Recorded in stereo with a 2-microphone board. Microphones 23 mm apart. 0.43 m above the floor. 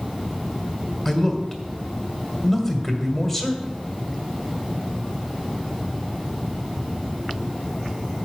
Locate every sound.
1.1 s a man speaking: 10° left (ahead or behind), 1.7 m